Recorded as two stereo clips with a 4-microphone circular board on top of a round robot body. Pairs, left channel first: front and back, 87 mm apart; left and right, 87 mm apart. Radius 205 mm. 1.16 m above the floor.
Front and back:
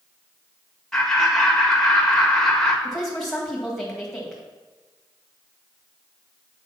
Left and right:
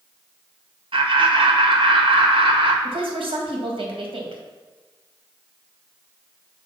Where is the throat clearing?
No throat clearing in this recording.